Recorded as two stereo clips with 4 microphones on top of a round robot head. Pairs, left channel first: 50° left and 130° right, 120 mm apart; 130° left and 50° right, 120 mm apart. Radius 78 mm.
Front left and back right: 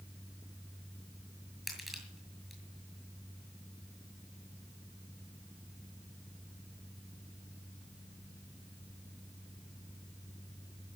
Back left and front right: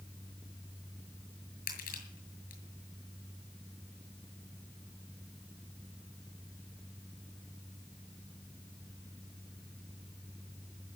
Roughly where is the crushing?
Behind left.